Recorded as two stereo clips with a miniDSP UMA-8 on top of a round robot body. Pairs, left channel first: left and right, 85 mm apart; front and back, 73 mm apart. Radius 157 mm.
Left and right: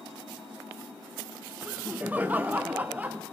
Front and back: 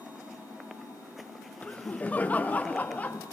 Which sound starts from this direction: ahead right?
Laughter, at 1.6 s.